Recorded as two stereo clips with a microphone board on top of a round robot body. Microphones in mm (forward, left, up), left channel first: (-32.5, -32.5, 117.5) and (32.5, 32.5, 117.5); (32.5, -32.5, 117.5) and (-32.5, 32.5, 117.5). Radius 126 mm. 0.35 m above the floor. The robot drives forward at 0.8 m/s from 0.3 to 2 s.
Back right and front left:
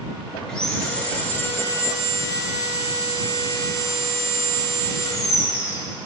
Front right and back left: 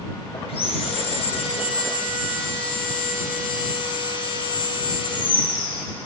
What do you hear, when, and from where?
0.5 s sawing: 55° right, 2.5 m; by 5.9 s 80° right, 2 m